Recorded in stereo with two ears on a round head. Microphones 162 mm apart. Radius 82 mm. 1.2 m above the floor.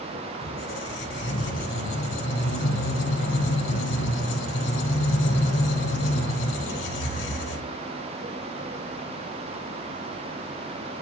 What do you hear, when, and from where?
0.4 s a squeak: 70° left (ahead or behind), 5 m